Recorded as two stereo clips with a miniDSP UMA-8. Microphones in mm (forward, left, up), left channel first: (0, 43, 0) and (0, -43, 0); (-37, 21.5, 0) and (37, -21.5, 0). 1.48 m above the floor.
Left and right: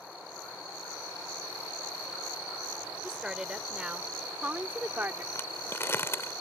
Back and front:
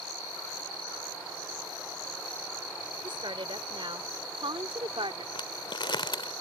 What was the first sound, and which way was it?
A woman speaking, 5° right.